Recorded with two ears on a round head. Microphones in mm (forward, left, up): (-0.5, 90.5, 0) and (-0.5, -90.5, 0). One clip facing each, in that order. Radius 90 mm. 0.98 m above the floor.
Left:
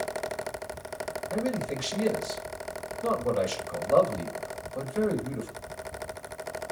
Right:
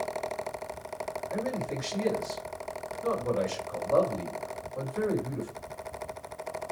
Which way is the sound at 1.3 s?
45° left (ahead or behind).